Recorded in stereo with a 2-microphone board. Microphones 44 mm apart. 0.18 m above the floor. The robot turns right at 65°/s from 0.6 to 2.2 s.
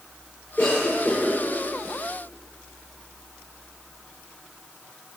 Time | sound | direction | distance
0.6 | a cough | 60° left (ahead or behind) | 3 m